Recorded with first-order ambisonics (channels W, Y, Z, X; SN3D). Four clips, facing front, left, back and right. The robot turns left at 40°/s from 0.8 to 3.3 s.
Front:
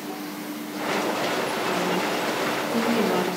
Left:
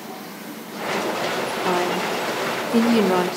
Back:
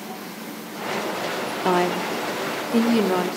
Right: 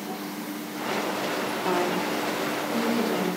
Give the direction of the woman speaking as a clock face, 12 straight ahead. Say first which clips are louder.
Left 4 dB, back 7 dB; 7 o'clock.